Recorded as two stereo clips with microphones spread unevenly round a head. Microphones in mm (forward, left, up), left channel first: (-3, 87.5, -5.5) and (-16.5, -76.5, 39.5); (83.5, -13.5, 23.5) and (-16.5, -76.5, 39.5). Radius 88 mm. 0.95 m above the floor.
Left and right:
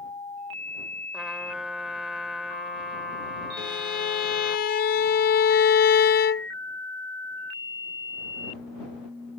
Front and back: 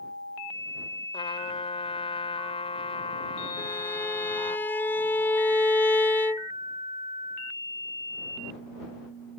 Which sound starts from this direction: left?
A violin, at 3.6 s.